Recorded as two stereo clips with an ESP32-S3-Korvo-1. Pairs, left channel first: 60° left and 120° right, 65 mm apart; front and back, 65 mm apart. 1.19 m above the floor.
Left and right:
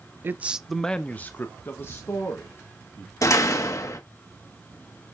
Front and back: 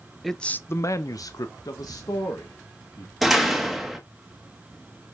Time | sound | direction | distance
0.2 | a man speaking | 95° right | 0.5 m
3.2 | a door slam | 90° left | 1.4 m